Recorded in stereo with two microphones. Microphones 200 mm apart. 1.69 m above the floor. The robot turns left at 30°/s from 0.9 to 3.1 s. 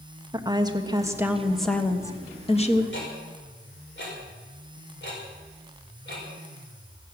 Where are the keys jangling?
I don't hear keys jangling.